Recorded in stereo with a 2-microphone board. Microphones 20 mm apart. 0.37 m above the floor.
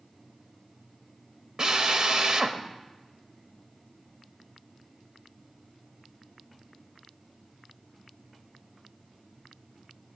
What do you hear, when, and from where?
1.6 s a drill: 45° right (ahead or behind), 0.8 m